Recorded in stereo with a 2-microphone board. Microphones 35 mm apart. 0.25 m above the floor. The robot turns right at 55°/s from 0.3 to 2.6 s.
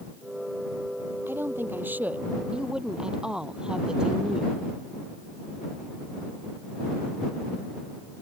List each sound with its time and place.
1.3 s a woman speaking: 100° right; by 4.7 s 25° right